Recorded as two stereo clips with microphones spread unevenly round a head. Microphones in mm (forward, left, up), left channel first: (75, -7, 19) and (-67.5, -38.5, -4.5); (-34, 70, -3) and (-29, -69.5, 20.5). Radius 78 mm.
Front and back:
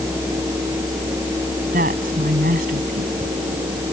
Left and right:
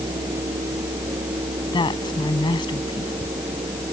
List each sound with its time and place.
1.7 s a woman speaking: 150° left